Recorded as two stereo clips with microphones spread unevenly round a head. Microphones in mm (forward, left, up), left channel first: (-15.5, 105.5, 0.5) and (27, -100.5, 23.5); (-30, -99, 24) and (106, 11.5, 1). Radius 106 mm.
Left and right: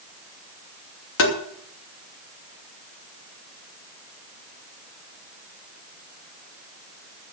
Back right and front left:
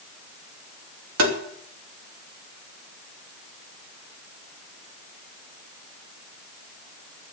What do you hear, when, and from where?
1.2 s tapping: 70° left, 2.5 m